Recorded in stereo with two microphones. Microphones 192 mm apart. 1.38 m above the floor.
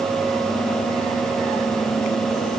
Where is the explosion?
No explosion in this recording.